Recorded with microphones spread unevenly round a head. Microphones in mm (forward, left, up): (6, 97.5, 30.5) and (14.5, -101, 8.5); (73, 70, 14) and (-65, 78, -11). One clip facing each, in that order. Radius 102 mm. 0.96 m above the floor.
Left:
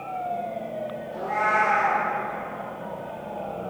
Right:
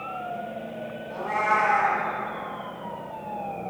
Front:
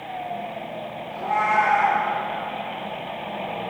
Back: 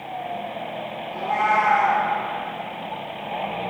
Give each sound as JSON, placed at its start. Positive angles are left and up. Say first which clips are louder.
{"t": 1.1, "sound": "a cat meowing", "louder": "even, back 1 dB", "azimuth_deg": -110, "distance_m": 2.5}